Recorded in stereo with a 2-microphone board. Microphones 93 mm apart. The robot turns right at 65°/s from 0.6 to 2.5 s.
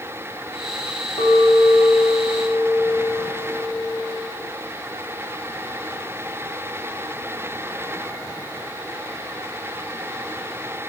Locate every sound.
1.2 s a clink: 80° left, 7 m; by 4.3 s 165° left, 7 m